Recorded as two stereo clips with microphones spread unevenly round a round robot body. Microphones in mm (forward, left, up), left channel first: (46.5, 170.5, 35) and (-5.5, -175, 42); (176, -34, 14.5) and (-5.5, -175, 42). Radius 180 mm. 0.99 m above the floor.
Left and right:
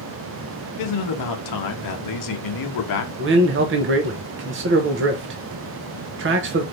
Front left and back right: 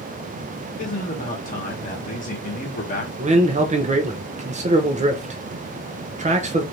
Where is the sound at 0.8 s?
85° left, 1.0 m.